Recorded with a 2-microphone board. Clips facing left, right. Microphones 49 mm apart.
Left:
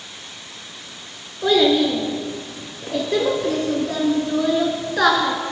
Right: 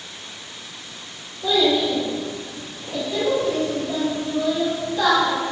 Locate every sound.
1.4 s a child speaking: 70° left (ahead or behind), 1.8 m